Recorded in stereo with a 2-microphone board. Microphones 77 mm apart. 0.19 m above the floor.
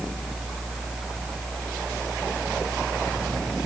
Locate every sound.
Only background noise.